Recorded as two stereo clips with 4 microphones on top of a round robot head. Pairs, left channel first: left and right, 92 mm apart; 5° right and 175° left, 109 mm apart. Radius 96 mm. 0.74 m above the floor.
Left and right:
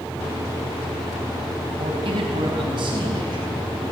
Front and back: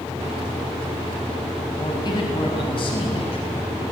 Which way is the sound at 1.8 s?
60° right.